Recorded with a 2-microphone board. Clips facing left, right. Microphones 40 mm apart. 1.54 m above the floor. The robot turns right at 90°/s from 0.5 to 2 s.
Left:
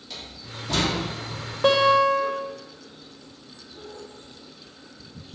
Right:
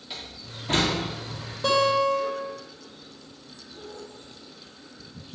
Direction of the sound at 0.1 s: 20° right (ahead or behind).